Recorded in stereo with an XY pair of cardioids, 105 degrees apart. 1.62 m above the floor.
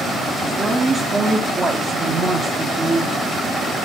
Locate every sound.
0.4 s a woman speaking: 20° right, 4 m